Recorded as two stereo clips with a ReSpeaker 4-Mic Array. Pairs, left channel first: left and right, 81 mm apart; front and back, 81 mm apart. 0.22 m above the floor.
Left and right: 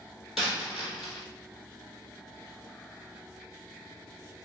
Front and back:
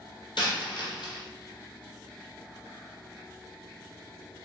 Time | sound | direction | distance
0.4 | a dropped coin | 5° right | 1.2 m